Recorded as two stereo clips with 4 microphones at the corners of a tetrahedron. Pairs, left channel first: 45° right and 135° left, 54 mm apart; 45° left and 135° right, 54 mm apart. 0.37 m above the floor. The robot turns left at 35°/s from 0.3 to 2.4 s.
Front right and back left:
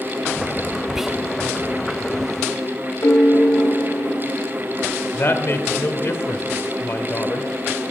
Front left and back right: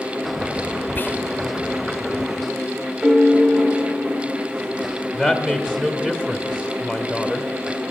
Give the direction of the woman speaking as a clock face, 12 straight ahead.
2 o'clock.